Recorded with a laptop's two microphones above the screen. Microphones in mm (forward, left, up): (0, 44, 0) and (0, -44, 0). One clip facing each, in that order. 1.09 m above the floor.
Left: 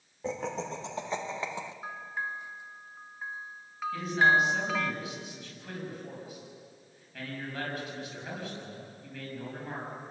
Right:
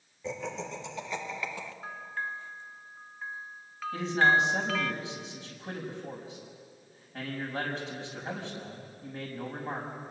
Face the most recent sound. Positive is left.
turn(degrees=-30)  # may be behind; listen again after turning